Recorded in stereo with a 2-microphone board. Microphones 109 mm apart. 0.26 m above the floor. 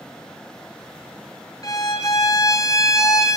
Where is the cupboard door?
I don't hear a cupboard door.